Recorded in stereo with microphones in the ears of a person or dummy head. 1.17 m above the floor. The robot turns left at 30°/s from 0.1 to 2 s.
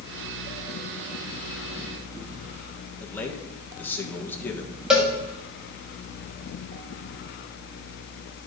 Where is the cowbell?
Centre (ahead or behind), 1.8 m.